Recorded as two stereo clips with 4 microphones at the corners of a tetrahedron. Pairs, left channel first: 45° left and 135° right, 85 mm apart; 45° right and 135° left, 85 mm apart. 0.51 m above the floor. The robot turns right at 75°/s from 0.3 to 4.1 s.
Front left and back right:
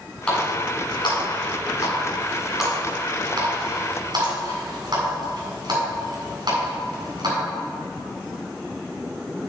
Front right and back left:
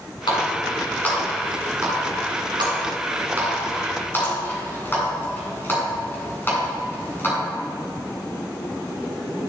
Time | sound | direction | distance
0.3 | a running tap | 35° right | 3 m